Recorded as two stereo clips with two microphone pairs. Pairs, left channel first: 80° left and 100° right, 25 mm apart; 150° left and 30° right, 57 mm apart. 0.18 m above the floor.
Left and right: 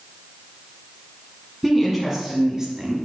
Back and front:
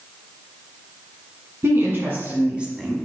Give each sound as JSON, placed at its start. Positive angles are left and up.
{"t": 1.6, "sound": "a woman speaking", "azimuth_deg": -15, "distance_m": 1.8}